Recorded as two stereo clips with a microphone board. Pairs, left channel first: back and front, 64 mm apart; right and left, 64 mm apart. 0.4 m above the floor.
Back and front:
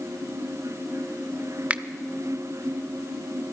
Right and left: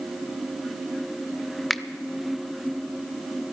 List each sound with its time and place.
1.7 s a finger snap: straight ahead, 0.5 m